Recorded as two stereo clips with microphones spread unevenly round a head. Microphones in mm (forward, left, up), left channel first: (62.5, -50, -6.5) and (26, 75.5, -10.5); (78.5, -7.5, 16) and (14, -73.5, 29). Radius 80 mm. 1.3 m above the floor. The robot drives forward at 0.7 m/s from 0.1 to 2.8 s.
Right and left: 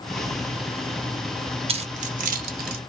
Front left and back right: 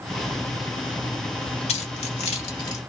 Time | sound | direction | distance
1.7 | keys jangling | 60° left | 0.9 m